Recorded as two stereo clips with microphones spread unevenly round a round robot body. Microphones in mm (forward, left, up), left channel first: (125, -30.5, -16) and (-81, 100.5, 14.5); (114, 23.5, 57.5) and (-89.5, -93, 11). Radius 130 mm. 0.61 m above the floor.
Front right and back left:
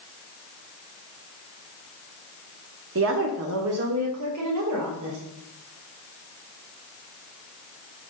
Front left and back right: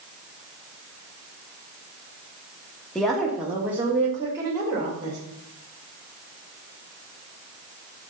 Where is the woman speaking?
125° left, 1.2 m; by 5.2 s 140° left, 2.5 m.